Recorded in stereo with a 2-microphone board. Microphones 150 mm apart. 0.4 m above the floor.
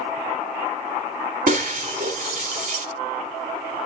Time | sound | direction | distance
1.5 | breaking glass | 70° right (ahead or behind) | 2.0 m